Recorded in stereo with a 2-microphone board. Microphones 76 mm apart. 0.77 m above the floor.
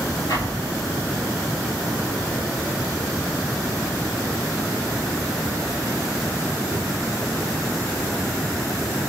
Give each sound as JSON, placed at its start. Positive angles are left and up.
{"t": 0.3, "sound": "an explosion", "side_deg": 60, "distance_m": 6.5}